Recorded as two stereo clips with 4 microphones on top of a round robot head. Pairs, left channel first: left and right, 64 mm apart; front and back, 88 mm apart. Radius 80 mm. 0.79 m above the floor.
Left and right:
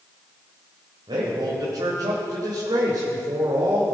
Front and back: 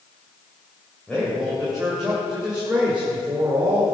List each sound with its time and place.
1.1 s a man speaking: 90° right, 3 m; by 4.0 s 120° right, 2.5 m